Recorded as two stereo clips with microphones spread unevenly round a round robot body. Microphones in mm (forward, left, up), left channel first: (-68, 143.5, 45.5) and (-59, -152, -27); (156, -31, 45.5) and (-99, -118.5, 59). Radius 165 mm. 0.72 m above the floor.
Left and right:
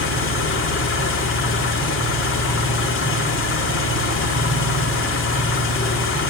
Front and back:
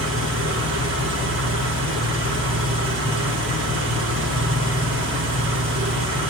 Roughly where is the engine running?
Behind left.